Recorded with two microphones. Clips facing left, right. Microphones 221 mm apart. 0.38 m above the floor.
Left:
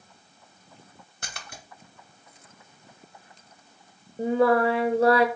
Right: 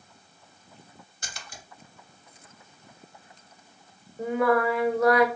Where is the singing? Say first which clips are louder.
Left 3 dB; 30° left (ahead or behind), 0.5 m.